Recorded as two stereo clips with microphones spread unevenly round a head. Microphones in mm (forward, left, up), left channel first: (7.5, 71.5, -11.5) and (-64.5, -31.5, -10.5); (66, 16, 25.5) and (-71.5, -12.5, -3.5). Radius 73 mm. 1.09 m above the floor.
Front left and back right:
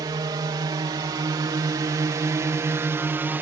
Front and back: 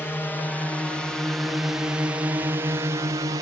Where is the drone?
70° right; by 3.4 s 170° left.